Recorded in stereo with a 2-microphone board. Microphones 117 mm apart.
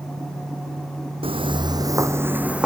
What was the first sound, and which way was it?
Footsteps, 55° right (ahead or behind).